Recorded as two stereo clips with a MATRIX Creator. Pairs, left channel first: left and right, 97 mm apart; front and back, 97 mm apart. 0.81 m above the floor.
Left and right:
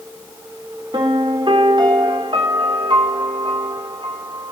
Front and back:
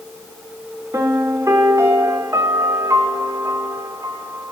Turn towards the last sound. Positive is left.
turn(degrees=-125)